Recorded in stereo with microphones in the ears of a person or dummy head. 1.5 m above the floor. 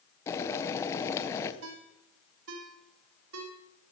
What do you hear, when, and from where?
0.3 s boiling: 20° left (ahead or behind), 0.9 m
1.6 s a ringtone: 70° right (ahead or behind), 1.4 m